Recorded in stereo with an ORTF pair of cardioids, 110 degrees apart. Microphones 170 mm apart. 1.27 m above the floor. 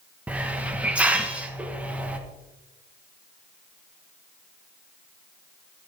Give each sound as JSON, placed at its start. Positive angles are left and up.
{"t": 0.3, "sound": "a hiss", "azimuth_deg": -10, "distance_m": 1.3}